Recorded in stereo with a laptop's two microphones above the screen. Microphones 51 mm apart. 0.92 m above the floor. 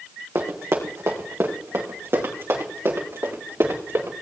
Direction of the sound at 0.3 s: 60° right (ahead or behind).